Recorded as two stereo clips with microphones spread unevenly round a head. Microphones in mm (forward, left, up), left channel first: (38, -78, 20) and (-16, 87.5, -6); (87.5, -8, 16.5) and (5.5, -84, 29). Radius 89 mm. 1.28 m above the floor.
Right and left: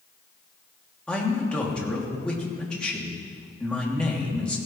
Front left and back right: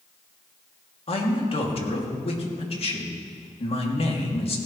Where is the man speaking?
15° left, 2.5 m.